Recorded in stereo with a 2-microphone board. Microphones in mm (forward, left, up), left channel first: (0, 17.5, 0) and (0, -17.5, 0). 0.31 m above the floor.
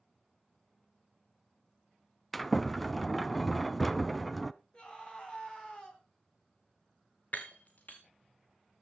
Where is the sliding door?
5° left (ahead or behind), 0.6 m.